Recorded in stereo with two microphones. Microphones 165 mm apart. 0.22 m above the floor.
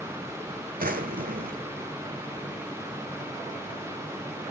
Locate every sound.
0.8 s a drawer: 75° right (ahead or behind), 0.8 m